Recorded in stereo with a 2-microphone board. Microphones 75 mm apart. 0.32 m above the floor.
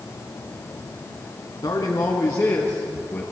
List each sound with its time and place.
1.6 s a man speaking: 55° left (ahead or behind), 3 m; by 3.2 s 25° left (ahead or behind), 3.5 m